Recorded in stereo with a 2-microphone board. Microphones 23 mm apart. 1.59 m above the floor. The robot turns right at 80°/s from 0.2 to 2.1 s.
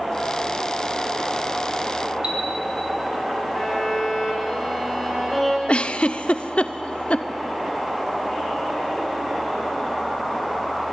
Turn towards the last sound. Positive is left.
turn(degrees=55)  # may be behind; listen again after turning